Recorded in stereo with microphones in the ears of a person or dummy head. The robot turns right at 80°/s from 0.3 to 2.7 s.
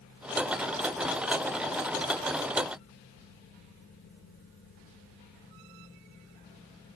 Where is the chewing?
No chewing in this recording.